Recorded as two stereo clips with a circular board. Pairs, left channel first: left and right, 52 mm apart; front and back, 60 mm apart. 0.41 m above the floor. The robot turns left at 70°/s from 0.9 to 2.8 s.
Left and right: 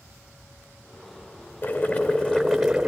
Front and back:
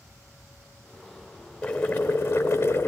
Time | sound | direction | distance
1.6 | boiling | 70° left | 1.7 m